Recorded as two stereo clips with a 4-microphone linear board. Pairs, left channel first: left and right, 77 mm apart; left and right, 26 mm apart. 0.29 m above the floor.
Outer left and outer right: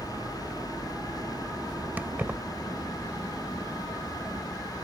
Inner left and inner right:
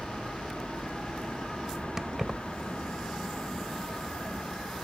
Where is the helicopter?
45° right (ahead or behind).